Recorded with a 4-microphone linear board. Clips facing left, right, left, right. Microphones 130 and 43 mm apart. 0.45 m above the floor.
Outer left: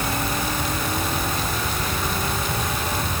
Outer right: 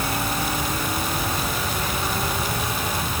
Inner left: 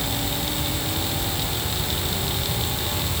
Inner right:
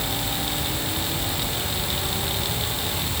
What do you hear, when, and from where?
Only background noise.